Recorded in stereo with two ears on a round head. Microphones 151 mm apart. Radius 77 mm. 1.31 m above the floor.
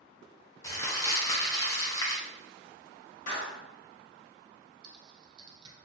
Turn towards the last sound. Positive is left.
turn(degrees=-30)  # may be behind; listen again after turning